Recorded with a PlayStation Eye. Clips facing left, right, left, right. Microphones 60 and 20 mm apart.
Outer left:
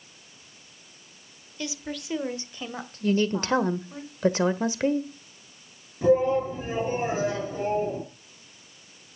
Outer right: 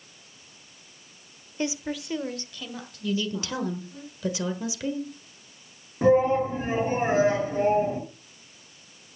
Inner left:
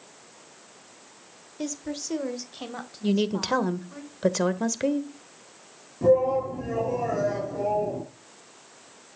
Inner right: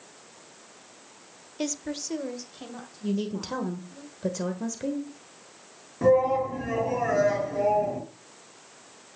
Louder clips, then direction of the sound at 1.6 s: Outer right 4 dB, inner right 1 dB; 30° right (ahead or behind).